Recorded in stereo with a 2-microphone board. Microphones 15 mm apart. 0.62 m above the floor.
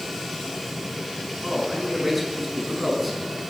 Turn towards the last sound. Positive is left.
turn(degrees=-5)  # may be behind; listen again after turning